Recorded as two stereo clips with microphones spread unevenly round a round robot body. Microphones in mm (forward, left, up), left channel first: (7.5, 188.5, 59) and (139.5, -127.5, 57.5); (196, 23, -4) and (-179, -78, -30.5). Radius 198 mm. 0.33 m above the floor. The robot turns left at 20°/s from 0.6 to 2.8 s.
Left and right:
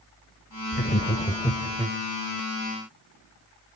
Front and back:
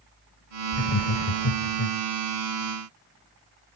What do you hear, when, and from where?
0.7 s laughter: 55° left, 1.2 m; by 2.0 s 30° left, 1.2 m